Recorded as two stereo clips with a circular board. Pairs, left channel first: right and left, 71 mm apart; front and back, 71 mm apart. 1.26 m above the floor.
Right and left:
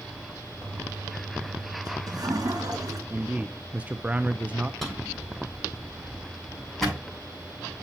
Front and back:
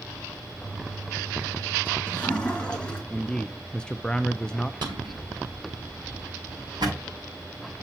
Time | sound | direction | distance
0.6 | a toilet flushing | 75° left | 2.5 m
3.1 | a man speaking | 55° left | 0.5 m
4.8 | a drawer | 175° right | 6.5 m